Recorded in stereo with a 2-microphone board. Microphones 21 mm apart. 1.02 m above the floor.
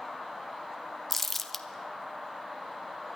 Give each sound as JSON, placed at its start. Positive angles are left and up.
{"t": 1.1, "sound": "crumpling", "side_deg": 10, "distance_m": 0.8}